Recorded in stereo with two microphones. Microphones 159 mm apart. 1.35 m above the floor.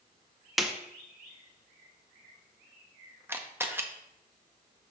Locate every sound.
0.6 s a snare drum: centre (ahead or behind), 0.7 m
3.3 s a camera shutter: 15° right (ahead or behind), 0.7 m